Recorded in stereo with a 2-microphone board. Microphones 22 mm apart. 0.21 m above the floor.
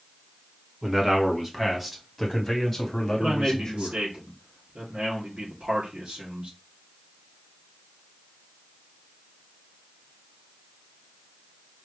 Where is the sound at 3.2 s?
65° right (ahead or behind), 3 m.